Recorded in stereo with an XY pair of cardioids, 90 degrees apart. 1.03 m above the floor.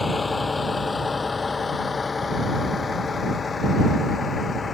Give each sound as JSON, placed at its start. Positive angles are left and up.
{"t": 0.0, "sound": "a vehicle", "azimuth_deg": 25}